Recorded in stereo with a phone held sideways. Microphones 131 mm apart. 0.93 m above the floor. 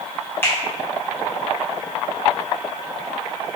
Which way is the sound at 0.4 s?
15° left (ahead or behind).